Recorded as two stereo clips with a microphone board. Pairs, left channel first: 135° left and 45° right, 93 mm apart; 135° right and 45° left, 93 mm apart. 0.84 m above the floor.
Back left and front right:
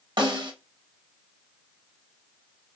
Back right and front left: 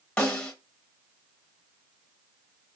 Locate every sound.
0.2 s a snare drum: 60° right, 0.8 m